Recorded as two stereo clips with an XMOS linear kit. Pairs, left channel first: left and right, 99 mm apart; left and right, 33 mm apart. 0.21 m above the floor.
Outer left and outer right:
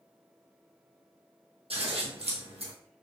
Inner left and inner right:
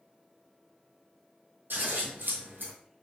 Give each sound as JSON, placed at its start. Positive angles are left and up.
{"t": 1.7, "sound": "scissors", "side_deg": -80, "distance_m": 2.0}